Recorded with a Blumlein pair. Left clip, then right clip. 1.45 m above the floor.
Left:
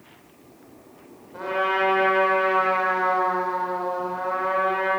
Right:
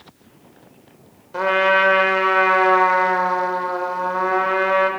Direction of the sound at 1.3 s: 35° right.